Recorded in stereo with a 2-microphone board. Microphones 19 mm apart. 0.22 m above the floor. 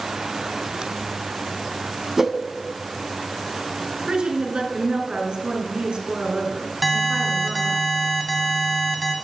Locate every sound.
2.2 s a whoosh: 20° right (ahead or behind), 0.7 m
4.1 s a woman speaking: 65° right (ahead or behind), 2.5 m
6.8 s an alarm: centre (ahead or behind), 1.4 m